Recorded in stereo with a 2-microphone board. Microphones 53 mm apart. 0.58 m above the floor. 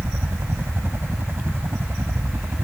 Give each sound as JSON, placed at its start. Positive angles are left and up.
{"t": 0.0, "sound": "a helicopter", "side_deg": -50}